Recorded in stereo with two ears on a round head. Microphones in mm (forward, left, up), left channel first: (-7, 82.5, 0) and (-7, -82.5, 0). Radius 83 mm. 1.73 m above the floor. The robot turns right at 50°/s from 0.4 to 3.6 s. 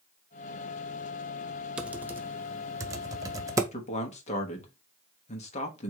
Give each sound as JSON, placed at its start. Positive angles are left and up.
{"t": 1.8, "sound": "typing on a keyboard", "side_deg": -5, "distance_m": 0.6}
{"t": 3.7, "sound": "a man speaking", "side_deg": 40, "distance_m": 1.2}